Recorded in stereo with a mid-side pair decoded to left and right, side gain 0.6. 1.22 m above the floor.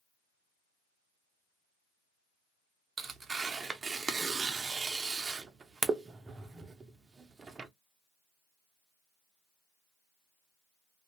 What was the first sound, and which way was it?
Tearing paper, 25° right.